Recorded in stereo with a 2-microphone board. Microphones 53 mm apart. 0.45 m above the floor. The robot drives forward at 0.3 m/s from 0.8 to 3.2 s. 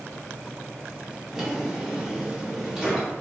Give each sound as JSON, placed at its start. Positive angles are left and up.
{"t": 1.3, "sound": "a drawer", "side_deg": -10, "distance_m": 0.7}